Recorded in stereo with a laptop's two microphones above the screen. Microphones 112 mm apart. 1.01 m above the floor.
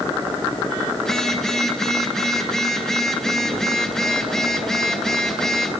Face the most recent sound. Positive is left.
turn(degrees=5)  # may be behind; listen again after turning